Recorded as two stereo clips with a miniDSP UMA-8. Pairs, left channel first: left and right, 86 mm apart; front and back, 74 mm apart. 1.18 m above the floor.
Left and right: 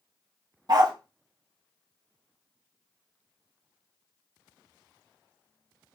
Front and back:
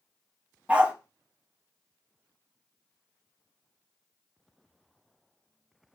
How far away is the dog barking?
About 0.9 m.